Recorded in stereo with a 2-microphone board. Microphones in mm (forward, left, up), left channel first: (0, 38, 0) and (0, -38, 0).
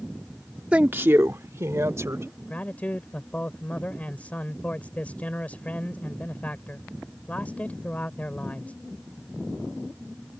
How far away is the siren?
No siren in this recording.